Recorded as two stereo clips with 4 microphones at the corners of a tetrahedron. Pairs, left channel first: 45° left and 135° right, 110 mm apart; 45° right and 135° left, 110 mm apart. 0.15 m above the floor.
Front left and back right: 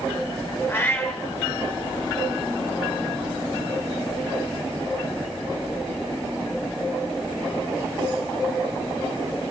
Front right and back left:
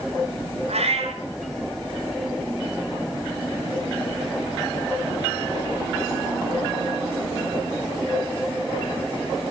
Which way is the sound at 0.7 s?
115° left.